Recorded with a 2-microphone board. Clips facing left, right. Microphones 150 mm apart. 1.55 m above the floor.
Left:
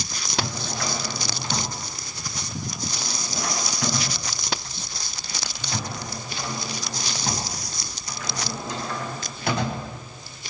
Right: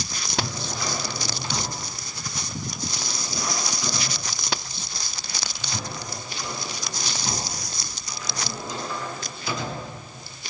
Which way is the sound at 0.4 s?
60° left (ahead or behind).